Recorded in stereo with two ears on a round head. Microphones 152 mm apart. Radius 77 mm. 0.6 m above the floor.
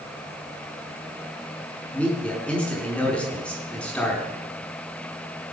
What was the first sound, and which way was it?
A man speaking, 5° left (ahead or behind).